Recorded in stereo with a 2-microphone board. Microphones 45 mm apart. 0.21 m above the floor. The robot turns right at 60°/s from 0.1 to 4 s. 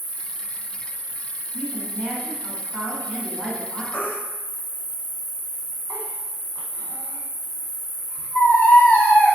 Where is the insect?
175° left, 1.7 m; by 9.4 s 50° left, 1.7 m.